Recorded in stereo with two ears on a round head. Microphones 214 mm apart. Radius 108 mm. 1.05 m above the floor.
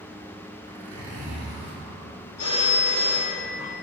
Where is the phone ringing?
75° left (ahead or behind), 1.8 m.